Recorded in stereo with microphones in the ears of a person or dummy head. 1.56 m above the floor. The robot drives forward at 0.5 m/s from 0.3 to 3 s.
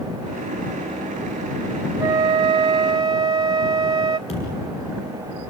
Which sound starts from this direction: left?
A thud, at 4.3 s.